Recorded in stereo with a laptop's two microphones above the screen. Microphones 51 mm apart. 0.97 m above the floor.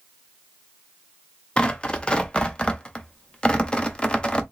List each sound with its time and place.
1.6 s tearing paper: 20° left (ahead or behind), 0.5 m